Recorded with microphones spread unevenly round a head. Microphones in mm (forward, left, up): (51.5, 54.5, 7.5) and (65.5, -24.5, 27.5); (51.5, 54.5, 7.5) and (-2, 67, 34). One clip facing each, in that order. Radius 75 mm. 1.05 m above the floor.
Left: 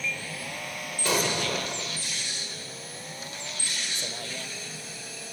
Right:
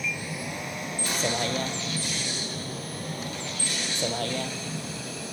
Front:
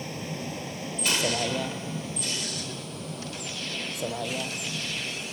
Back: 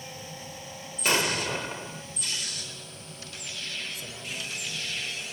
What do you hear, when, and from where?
0.0 s a vehicle: 5° right; by 5.3 s 60° right
1.1 s an explosion: 125° left